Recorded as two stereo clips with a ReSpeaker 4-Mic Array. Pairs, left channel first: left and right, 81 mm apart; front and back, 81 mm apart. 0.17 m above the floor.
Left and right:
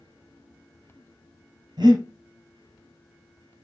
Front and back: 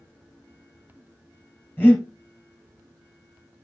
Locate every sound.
1.8 s breathing: 65° right, 3.5 m